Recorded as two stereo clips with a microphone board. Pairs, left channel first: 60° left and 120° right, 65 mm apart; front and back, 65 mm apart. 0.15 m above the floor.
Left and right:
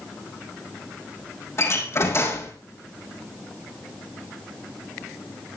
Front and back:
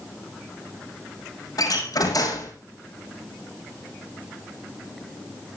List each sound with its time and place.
1.6 s a door slam: 15° left, 5.5 m